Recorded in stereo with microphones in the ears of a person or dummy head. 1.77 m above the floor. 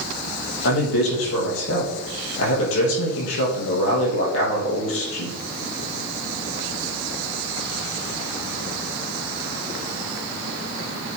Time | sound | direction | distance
0.6 | a man speaking | 75° left (ahead or behind) | 3 m